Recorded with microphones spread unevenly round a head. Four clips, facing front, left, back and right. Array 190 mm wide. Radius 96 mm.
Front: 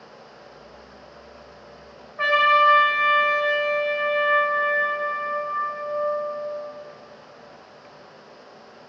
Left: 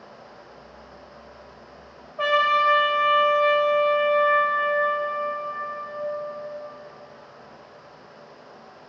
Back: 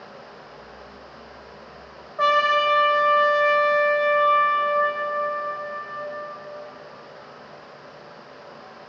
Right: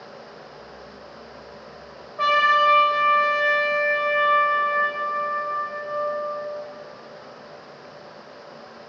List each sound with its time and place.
2.2 s a trumpet: 155° left, 0.7 m